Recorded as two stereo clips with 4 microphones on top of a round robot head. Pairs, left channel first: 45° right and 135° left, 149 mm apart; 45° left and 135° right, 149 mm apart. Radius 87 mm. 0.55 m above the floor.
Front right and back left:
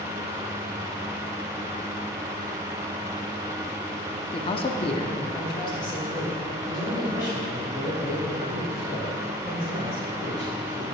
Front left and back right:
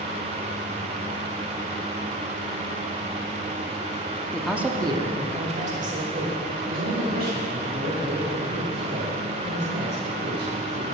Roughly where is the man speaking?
Ahead right.